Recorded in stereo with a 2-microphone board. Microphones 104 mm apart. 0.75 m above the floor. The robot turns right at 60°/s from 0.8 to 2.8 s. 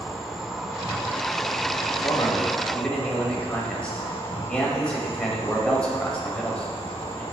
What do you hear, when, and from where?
0.0 s an insect: 5° right, 1.8 m; by 7.3 s 115° left, 1.8 m
2.0 s a man speaking: 125° left, 4.5 m; by 7.2 s 170° left, 4.5 m